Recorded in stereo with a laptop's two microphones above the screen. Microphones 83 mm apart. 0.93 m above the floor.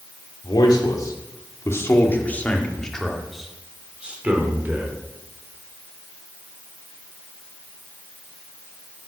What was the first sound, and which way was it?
A man speaking, 60° left (ahead or behind).